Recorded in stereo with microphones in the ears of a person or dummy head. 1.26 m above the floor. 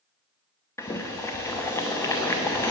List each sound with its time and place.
0.8 s boiling: 15° left (ahead or behind), 0.7 m